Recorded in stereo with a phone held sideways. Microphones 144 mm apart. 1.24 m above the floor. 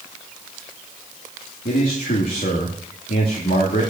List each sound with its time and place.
1.6 s a man speaking: 85° left, 2 m